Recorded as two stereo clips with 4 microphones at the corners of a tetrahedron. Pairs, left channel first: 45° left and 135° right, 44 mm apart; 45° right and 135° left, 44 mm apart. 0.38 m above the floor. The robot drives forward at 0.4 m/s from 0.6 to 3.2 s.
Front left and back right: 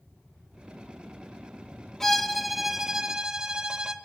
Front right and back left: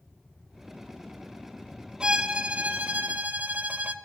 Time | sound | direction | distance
2.0 | a violin | 110° left | 0.7 m